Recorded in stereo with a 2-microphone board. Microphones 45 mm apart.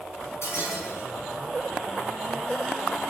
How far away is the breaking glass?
About 4.5 m.